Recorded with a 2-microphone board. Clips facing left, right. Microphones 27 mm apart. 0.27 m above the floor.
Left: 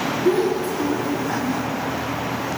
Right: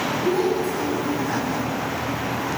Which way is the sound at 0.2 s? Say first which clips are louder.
Left 3 dB; 50° left (ahead or behind).